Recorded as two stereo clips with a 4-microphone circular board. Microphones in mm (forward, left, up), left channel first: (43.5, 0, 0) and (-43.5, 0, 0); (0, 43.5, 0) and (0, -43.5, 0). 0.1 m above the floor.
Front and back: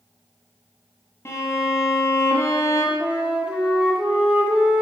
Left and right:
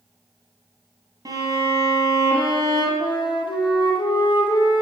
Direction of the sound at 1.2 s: 55° right.